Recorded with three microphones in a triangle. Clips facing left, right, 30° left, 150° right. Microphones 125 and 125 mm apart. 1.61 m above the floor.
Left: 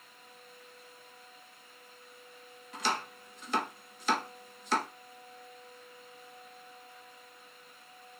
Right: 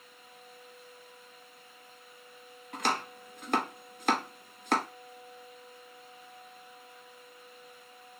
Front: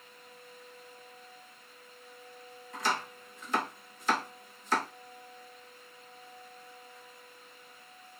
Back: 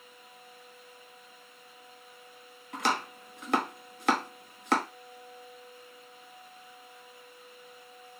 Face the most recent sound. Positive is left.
turn(degrees=-125)